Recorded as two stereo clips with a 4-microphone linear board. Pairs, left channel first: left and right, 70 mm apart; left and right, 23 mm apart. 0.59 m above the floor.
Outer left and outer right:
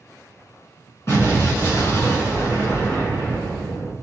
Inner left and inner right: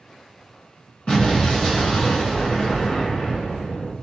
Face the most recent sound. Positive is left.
turn(degrees=40)  # may be behind; listen again after turning